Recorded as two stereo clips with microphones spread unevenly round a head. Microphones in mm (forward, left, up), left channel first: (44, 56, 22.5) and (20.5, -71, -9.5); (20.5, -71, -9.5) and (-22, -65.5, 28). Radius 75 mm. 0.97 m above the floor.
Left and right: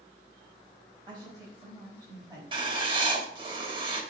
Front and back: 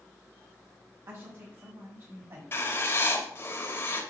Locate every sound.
1.1 s a woman speaking: 160° right, 5 m; by 2.4 s 170° right, 4.5 m
2.5 s writing: 45° right, 3 m